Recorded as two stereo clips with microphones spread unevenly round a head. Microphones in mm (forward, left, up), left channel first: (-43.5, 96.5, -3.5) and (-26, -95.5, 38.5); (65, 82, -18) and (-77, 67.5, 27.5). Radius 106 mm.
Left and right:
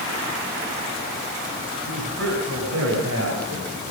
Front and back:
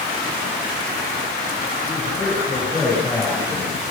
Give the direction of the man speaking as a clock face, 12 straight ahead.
3 o'clock.